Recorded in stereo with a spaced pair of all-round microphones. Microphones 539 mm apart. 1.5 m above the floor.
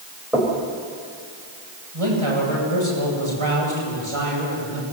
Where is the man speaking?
70° right (ahead or behind), 9.5 m.